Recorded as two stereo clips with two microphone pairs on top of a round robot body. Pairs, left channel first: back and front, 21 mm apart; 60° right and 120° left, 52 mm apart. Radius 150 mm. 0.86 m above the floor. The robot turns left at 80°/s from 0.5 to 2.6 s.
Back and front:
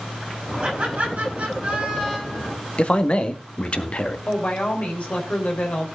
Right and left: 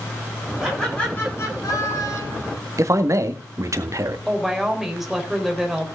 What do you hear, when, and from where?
0.6 s laughter: 40° left, 9 m; by 2.5 s 115° right, 9 m
2.8 s a man speaking: 140° left, 1.8 m
4.3 s a woman speaking: 160° right, 4 m